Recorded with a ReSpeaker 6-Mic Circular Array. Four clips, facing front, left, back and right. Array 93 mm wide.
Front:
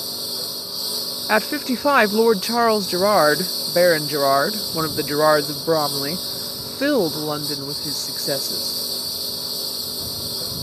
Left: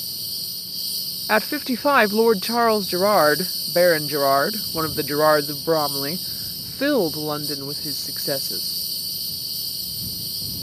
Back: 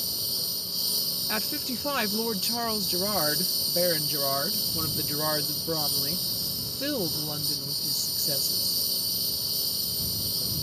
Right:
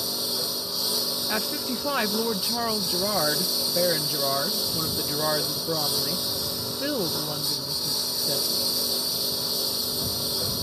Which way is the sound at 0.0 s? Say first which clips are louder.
Right 12 dB, front 7 dB; 65° right.